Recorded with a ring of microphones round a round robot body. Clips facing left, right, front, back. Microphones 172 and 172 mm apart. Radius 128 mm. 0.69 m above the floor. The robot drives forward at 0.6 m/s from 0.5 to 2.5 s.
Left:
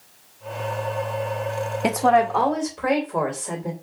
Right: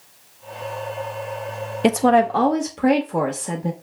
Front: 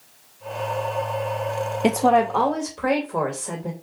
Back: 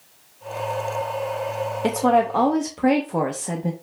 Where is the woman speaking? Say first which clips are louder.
Right 3 dB, front 1 dB; 55° right, 0.6 m; by 3.7 s 130° right, 0.6 m.